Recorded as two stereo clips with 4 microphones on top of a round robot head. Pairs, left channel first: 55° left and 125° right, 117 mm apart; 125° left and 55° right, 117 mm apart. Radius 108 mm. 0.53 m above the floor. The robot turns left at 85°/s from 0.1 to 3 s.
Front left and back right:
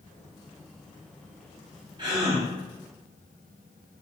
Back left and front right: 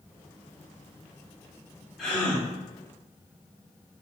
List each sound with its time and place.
2.0 s a gasp: 145° right, 1.5 m; by 2.5 s 175° left, 1.5 m